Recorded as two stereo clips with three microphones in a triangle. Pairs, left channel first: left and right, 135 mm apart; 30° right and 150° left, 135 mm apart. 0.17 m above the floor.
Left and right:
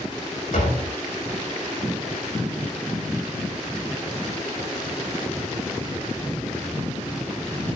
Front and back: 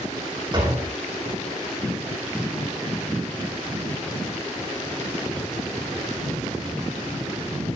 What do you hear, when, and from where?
0.5 s a door slam: 100° left, 6 m